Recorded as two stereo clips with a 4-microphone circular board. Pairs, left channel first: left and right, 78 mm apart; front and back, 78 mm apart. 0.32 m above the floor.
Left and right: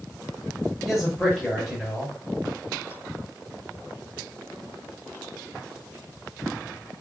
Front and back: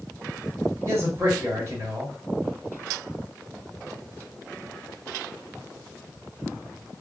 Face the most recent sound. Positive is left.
turn(degrees=180)